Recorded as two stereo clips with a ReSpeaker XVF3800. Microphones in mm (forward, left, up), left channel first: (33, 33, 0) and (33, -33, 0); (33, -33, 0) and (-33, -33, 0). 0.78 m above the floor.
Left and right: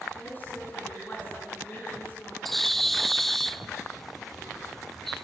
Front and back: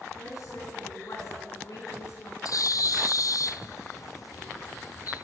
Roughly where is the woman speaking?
Ahead left.